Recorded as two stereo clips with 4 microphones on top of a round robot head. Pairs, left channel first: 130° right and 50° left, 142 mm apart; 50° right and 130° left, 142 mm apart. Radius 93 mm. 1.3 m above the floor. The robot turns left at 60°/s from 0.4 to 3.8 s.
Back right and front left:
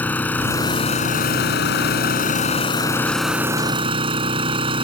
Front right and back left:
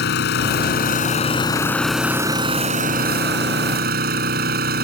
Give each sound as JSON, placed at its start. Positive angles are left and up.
{"t": 0.0, "sound": "an engine running", "azimuth_deg": -50}